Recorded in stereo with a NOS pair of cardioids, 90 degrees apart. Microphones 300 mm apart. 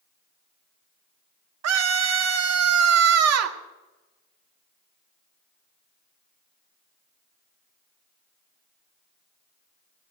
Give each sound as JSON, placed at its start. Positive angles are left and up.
{"t": 1.6, "sound": "a scream", "azimuth_deg": -65, "distance_m": 1.9}